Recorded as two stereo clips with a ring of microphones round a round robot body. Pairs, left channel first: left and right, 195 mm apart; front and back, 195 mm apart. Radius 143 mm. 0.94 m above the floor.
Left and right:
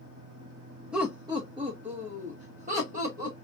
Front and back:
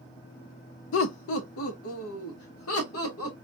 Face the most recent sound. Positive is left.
turn(degrees=-30)